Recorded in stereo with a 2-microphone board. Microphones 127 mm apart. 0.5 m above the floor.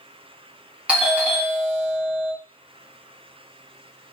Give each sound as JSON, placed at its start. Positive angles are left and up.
{"t": 0.9, "sound": "a doorbell", "side_deg": -10, "distance_m": 1.2}